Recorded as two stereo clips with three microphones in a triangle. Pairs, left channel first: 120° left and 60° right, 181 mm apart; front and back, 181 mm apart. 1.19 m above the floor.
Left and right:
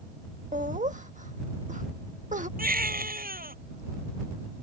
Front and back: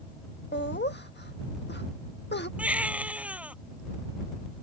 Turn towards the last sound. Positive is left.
turn(degrees=-95)